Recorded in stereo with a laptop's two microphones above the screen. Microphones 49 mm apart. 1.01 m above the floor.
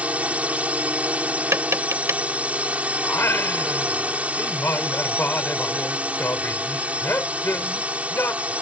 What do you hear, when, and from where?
0.0 s a drone: 30° right (ahead or behind)
1.5 s tapping: 75° right (ahead or behind)
3.0 s singing: 55° left (ahead or behind)